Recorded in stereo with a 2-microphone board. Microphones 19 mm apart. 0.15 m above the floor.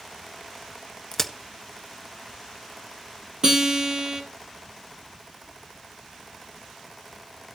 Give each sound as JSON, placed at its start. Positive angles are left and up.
{"t": 1.1, "sound": "a crack", "side_deg": 20, "distance_m": 1.3}
{"t": 3.4, "sound": "a guitar", "side_deg": -45, "distance_m": 3.0}